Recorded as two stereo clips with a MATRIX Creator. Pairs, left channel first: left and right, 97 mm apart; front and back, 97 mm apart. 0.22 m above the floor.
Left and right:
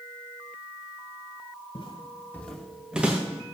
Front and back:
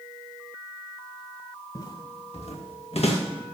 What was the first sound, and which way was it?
Footsteps, 50° left.